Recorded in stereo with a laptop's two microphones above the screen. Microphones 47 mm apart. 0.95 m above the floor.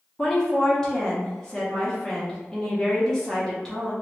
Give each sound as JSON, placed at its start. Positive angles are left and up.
{"t": 0.2, "sound": "a woman speaking", "side_deg": 15, "distance_m": 0.8}